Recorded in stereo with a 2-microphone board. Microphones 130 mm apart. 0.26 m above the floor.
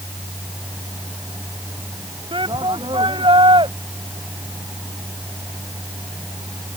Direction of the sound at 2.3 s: 45° right (ahead or behind).